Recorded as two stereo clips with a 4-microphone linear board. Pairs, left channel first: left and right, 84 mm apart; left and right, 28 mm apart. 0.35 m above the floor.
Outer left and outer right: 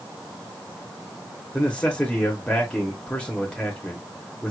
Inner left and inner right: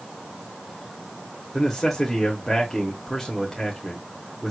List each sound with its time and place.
1.5 s a man speaking: 15° left (ahead or behind), 0.9 m